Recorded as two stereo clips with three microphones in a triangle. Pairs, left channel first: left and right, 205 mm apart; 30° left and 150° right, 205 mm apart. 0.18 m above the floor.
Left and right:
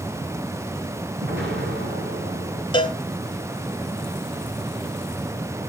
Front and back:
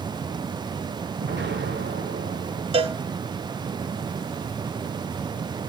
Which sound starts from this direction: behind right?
An explosion, at 1.2 s.